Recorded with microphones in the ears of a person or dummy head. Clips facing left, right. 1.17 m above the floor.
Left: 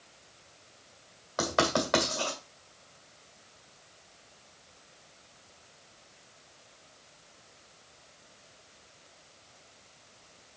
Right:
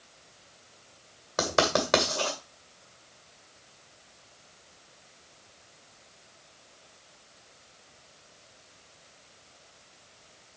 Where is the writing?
50° right (ahead or behind), 2 m.